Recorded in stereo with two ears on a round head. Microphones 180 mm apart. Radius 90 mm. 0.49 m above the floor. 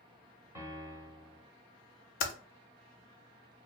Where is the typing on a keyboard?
45° left (ahead or behind), 0.5 m.